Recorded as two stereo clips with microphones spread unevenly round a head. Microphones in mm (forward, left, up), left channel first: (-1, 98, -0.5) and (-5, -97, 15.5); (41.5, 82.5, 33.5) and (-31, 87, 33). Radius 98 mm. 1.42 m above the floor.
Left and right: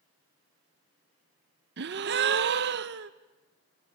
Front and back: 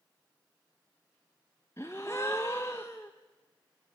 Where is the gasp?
75° right, 0.8 m.